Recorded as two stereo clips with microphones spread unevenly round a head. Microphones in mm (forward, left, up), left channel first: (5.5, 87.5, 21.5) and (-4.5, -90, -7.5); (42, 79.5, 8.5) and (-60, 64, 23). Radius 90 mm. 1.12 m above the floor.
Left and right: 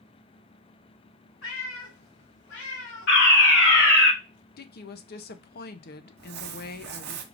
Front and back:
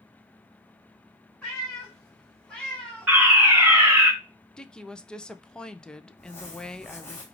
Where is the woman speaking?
80° left, 0.6 m.